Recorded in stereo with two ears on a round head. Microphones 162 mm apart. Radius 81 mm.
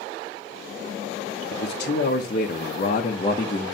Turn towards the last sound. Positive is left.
turn(degrees=20)  # may be behind; listen again after turning